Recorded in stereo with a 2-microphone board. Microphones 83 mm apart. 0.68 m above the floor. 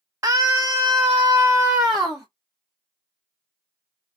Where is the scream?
35° right (ahead or behind), 1.0 m; by 2.3 s centre (ahead or behind), 1.1 m.